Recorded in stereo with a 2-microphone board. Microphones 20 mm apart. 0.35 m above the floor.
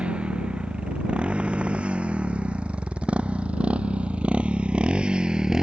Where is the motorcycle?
70° right (ahead or behind); by 5.6 s 30° right (ahead or behind).